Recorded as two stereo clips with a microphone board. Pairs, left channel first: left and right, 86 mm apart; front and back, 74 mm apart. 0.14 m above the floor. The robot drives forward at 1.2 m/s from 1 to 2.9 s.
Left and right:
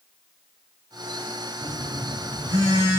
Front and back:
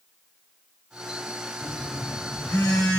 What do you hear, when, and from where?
1.6 s a phone buzzing: 60° right, 7.5 m; by 3.0 s 70° right, 6.5 m